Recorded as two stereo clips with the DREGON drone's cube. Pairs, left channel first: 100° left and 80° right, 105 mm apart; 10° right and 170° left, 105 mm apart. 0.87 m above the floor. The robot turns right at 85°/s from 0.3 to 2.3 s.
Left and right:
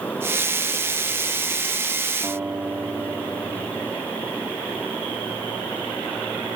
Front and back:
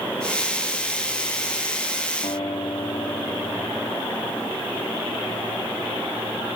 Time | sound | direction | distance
2.2 | a guitar | 10° right | 2.5 m